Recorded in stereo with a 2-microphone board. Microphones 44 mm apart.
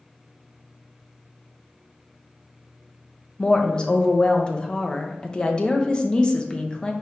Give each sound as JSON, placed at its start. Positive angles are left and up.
{"t": 3.4, "sound": "a woman speaking", "side_deg": 20, "distance_m": 0.5}